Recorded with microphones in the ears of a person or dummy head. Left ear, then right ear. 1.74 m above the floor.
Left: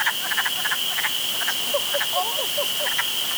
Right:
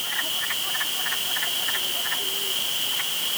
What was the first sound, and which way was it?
Only background noise.